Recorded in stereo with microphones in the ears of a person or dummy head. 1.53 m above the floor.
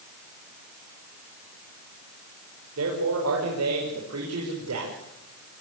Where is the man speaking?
80° right, 5.5 m; by 5.6 s 70° right (ahead or behind), 6 m.